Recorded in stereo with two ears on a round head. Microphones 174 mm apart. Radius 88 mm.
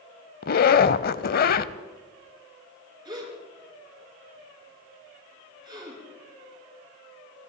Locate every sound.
0.4 s a zipper: 50° left (ahead or behind), 0.6 m
3.0 s a gasp: 25° right (ahead or behind), 7.5 m